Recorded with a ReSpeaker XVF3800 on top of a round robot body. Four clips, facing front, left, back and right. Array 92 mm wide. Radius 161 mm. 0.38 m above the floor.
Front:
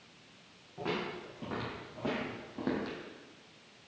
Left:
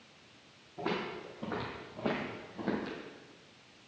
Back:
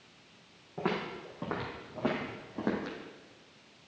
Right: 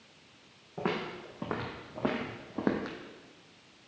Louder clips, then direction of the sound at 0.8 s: Right 2 dB, back 3 dB; 130° right.